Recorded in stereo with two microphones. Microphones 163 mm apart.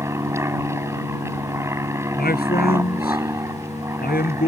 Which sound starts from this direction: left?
A man speaking, at 2.2 s.